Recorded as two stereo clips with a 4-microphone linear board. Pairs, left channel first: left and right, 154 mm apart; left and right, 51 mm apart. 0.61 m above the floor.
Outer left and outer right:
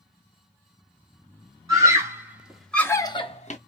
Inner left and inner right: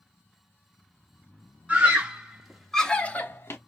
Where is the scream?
20° right (ahead or behind), 1.5 m; by 3.6 s 50° left (ahead or behind), 0.8 m.